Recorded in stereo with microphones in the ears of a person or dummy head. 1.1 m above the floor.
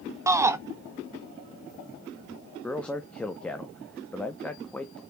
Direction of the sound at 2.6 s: 5° left (ahead or behind).